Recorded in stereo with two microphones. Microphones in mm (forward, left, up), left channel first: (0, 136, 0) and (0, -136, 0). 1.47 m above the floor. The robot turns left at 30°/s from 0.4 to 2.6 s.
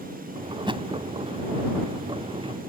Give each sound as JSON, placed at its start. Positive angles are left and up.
{"t": 0.7, "sound": "a thud", "side_deg": -15}